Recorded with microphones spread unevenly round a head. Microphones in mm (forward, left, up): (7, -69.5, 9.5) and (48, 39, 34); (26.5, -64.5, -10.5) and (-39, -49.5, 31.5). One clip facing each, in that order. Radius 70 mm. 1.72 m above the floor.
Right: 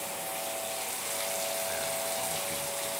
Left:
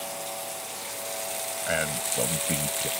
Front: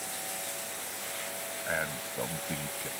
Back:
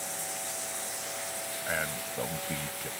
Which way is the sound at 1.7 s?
80° left.